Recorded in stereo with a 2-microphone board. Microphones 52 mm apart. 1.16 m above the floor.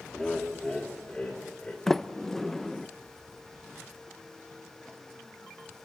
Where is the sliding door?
10° left (ahead or behind), 0.6 m.